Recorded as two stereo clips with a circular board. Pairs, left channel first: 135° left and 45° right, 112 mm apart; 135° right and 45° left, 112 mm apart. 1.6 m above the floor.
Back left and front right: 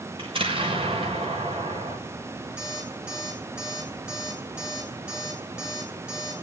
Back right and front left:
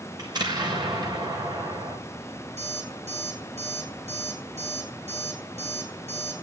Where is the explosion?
5° right, 6.5 m.